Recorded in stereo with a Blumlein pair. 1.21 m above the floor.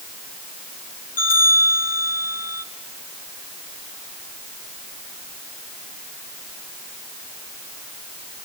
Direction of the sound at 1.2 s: 65° left.